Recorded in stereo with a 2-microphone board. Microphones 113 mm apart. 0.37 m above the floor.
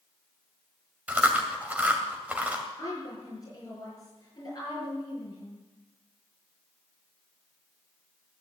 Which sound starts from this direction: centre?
Chewing, at 1.1 s.